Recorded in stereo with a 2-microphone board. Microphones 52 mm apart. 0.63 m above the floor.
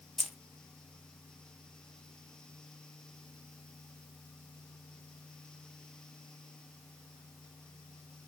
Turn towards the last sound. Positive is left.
turn(degrees=0)  # may be behind; listen again after turning